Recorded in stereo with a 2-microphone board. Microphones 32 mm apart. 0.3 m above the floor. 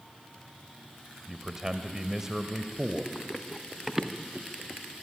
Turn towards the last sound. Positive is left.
turn(degrees=-35)  # may be behind; listen again after turning